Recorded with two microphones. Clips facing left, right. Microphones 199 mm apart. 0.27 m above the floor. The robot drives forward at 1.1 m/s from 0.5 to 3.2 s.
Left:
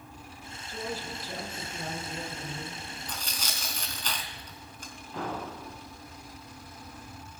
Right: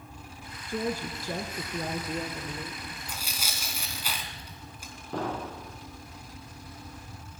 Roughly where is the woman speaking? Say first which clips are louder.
Right 6 dB; right.